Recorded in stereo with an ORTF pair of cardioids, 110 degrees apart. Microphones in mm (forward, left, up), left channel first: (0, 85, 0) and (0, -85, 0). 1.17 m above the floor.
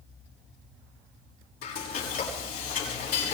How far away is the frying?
About 6.5 m.